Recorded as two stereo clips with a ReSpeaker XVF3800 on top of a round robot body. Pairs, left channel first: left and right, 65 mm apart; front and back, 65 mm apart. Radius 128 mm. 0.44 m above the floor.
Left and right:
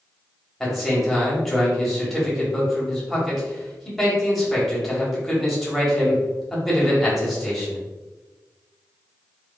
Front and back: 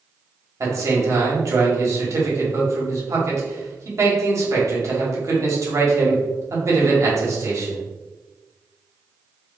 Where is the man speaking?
Straight behind, 1.9 m.